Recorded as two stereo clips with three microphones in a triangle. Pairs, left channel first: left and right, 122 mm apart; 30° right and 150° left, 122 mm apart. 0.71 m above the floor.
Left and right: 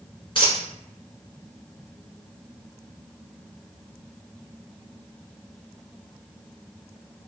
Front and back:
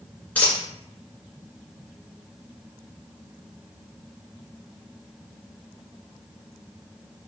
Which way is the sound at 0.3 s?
45° left.